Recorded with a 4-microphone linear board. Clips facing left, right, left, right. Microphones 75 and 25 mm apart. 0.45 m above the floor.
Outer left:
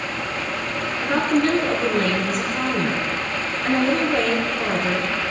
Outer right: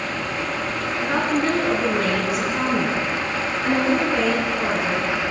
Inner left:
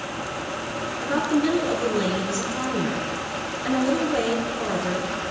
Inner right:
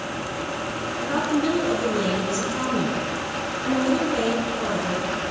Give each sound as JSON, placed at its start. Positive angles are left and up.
{"t": 1.0, "sound": "a woman speaking", "side_deg": -10, "distance_m": 4.5}